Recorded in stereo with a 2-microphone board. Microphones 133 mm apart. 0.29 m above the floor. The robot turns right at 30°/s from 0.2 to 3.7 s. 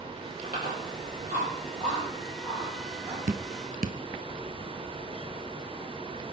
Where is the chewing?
80° right, 7.5 m; by 3.2 s 15° right (ahead or behind), 7.5 m.